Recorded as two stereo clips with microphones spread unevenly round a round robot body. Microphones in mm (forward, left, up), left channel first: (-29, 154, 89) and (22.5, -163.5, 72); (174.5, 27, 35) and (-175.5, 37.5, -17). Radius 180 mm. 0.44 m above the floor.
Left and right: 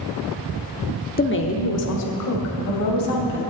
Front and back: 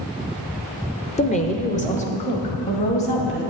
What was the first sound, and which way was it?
A woman speaking, 65° left.